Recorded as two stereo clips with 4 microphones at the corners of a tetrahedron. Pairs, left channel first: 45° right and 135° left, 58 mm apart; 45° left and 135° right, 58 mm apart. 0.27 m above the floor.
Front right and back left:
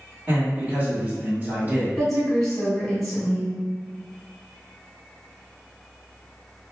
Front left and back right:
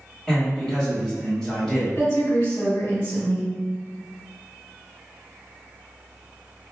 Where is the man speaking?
115° left, 1.8 m.